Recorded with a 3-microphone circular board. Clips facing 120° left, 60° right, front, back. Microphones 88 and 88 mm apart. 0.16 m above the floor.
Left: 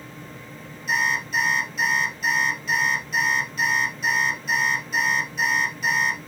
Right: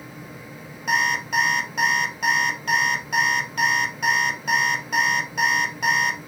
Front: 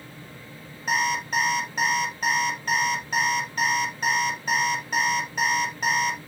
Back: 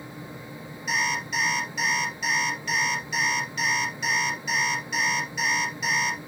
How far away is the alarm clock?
About 2.0 m.